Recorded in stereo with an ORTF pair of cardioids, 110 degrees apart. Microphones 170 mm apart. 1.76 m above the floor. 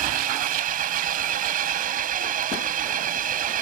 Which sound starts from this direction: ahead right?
An engine running, at 0.0 s.